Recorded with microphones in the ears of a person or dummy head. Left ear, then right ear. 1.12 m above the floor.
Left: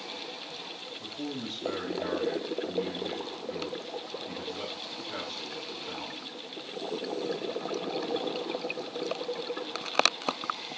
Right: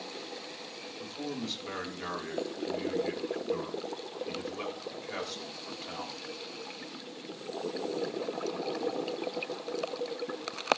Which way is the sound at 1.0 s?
75° right (ahead or behind).